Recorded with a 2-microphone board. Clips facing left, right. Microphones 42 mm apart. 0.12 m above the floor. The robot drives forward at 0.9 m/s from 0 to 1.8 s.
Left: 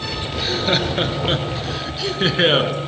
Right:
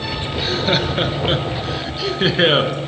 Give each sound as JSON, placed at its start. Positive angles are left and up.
{"t": 0.3, "sound": "laughter", "side_deg": -5, "distance_m": 2.5}